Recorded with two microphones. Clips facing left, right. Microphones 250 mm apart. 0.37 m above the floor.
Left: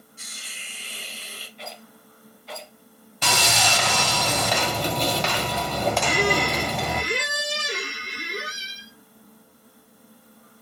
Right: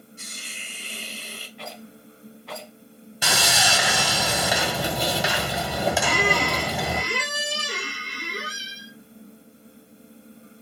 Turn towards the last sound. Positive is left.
turn(degrees=20)  # may be behind; listen again after turning